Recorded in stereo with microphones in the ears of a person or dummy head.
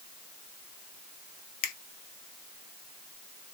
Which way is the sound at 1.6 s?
50° left (ahead or behind).